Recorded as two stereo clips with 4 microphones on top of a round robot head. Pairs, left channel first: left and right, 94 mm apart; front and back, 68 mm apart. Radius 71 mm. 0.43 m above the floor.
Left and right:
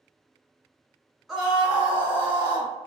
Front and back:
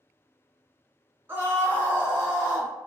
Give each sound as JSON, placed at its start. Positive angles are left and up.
{"t": 1.3, "sound": "a scream", "azimuth_deg": 180, "distance_m": 1.6}